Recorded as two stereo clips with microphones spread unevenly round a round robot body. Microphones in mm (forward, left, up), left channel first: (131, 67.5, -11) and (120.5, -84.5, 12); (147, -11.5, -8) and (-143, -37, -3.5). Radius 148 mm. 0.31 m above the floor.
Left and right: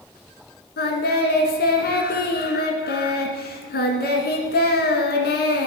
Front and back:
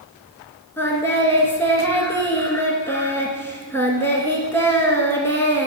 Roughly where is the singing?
Left.